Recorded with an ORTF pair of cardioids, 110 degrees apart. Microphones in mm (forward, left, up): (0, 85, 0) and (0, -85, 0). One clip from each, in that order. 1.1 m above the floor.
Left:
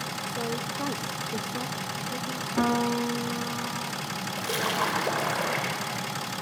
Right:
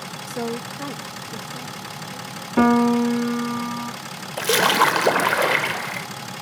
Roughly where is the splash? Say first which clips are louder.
Right 11 dB; ahead right.